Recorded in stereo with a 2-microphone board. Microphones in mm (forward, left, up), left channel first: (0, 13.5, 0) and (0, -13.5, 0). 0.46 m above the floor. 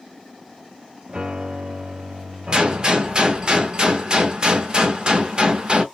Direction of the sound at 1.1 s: 45° right (ahead or behind).